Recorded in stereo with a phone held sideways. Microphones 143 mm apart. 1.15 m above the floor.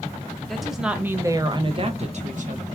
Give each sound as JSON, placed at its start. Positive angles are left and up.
{"t": 0.5, "sound": "a woman speaking", "side_deg": 5, "distance_m": 0.9}